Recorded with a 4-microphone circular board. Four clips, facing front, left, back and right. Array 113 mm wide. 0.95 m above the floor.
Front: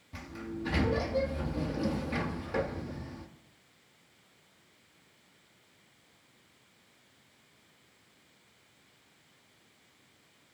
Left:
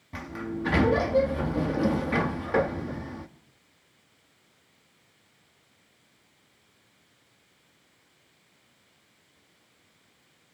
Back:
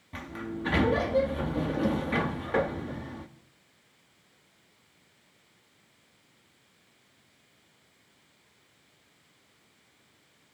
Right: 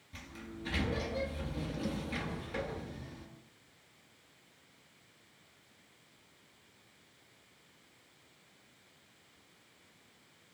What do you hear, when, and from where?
0.1 s a sliding door: 115° left, 1.5 m